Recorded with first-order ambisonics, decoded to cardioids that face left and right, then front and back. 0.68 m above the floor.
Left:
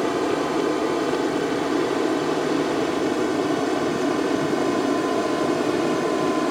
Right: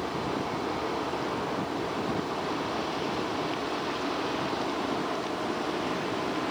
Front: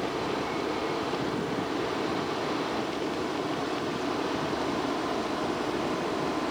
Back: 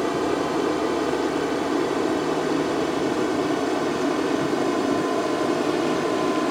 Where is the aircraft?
130° left.